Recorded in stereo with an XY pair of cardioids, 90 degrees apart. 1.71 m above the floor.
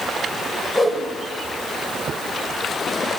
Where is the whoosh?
25° left, 6.5 m.